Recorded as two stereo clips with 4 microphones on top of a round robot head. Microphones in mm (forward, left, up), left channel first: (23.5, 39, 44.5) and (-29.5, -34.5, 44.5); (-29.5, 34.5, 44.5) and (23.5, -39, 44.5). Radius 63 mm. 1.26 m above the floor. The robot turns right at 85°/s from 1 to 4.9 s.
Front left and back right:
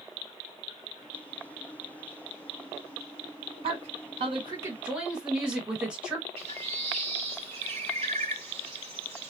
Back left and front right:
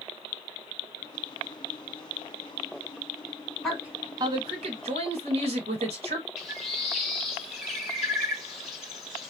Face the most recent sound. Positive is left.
turn(degrees=-145)